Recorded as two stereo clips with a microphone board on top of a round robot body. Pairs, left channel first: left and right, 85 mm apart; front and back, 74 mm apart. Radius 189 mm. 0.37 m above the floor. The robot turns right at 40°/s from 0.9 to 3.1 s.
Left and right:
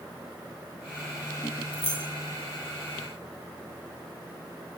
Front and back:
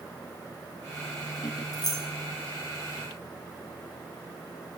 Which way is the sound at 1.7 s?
15° left.